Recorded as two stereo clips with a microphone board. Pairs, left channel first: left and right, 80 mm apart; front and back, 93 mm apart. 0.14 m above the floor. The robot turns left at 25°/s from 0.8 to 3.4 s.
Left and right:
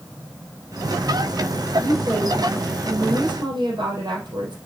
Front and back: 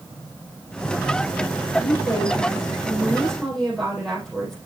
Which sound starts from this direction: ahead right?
A woman speaking, at 1.8 s.